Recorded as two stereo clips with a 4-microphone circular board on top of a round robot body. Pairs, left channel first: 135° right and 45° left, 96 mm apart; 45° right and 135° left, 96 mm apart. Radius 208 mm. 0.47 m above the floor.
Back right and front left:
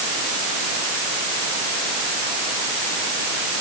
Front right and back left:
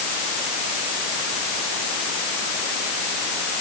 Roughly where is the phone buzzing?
I don't hear a phone buzzing.